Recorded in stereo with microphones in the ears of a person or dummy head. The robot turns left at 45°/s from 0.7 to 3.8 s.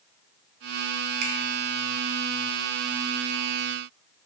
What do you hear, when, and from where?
1.2 s a finger snap: 55° right (ahead or behind), 0.6 m; by 1.3 s 60° right (ahead or behind), 0.6 m